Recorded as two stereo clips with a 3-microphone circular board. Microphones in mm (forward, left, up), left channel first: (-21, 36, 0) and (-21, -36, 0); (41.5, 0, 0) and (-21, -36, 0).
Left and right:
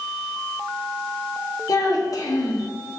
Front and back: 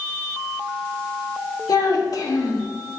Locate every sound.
1.7 s a child speaking: 55° left, 1.1 m